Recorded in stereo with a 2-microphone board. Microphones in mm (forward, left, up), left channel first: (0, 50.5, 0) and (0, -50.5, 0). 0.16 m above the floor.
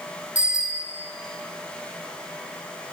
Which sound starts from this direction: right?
A bicycle bell, at 0.3 s.